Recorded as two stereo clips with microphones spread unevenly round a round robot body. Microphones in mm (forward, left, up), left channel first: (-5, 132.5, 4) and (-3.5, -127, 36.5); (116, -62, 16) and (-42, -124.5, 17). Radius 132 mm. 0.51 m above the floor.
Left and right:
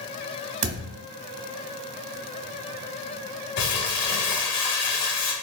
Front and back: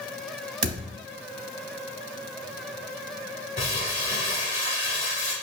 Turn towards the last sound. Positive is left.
turn(degrees=85)